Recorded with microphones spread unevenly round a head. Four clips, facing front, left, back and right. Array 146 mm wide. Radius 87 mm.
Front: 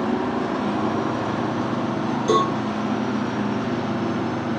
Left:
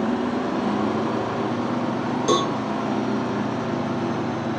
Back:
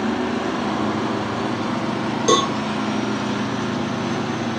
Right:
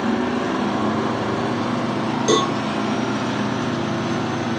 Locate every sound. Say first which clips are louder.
2.3 s a cowbell: right 3 dB, back 1 dB; 170° left, 1.9 m